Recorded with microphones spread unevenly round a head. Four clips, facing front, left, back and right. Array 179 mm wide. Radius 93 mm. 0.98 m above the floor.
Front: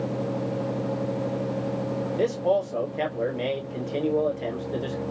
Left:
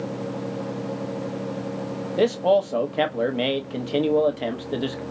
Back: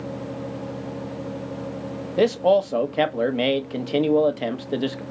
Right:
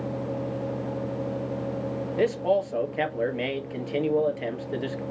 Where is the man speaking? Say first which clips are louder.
Left 5 dB, back 6 dB; 150° left, 1.3 m.